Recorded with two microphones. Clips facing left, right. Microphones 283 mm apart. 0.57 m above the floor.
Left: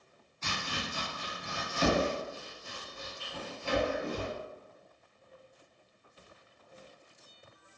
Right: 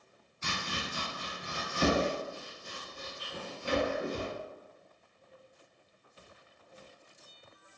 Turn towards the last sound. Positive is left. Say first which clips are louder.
# even
turn(degrees=-15)  # may be behind; listen again after turning